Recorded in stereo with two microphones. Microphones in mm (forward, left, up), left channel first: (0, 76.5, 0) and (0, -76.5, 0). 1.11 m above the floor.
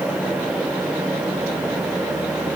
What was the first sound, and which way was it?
Only background noise.